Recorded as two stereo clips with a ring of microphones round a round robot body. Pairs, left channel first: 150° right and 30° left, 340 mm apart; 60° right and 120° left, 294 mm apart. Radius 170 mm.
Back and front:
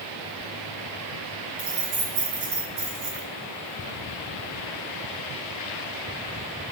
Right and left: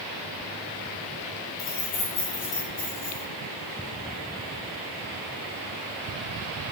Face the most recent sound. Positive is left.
turn(degrees=30)